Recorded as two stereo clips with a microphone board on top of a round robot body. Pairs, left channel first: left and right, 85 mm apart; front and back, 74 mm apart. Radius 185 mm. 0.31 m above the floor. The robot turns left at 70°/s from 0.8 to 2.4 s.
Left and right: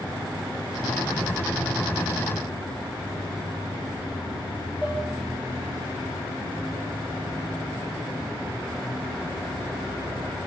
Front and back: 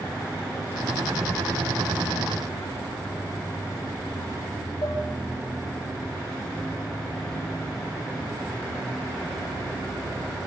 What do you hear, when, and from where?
4.8 s dishes clattering: 15° right, 6 m